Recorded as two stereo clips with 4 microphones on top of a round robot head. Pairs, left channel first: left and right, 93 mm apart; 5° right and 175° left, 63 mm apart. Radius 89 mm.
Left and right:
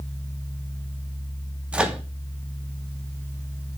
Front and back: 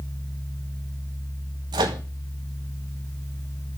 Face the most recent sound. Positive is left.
turn(degrees=-165)